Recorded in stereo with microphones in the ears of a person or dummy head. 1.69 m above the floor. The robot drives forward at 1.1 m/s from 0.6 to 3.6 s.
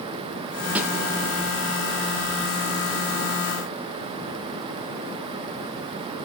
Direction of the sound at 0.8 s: 10° right (ahead or behind).